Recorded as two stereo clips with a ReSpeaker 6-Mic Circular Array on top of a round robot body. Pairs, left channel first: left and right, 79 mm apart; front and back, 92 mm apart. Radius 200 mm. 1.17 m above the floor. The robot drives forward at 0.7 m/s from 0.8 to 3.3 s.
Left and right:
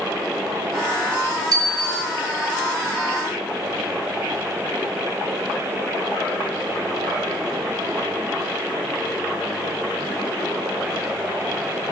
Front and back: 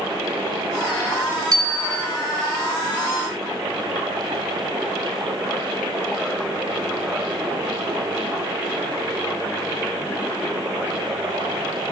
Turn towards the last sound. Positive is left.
turn(degrees=-140)